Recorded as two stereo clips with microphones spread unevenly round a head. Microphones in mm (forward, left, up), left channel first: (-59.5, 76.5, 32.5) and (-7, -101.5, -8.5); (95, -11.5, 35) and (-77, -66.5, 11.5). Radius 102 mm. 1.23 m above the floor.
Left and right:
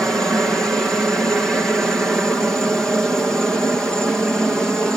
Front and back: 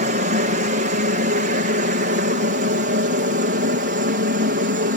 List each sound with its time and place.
0.0 s a helicopter: 155° right; by 5.0 s 160° right